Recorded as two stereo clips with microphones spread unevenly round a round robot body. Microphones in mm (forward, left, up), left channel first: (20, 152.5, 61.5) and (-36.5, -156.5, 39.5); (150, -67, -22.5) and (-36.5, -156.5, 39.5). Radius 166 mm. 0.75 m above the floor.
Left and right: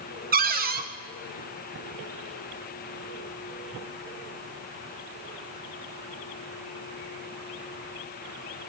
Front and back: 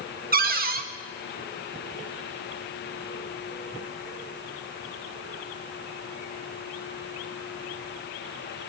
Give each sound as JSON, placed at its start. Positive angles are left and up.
{"t": 0.3, "sound": "a cupboard door", "azimuth_deg": -115, "distance_m": 0.9}